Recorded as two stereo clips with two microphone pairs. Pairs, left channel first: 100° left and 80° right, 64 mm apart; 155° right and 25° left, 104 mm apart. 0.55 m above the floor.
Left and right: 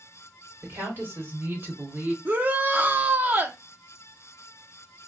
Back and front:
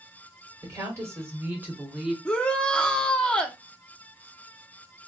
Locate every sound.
0.6 s a woman speaking: 30° right, 2 m; by 2.1 s 60° right, 1.2 m
2.2 s a shout: 85° right, 0.7 m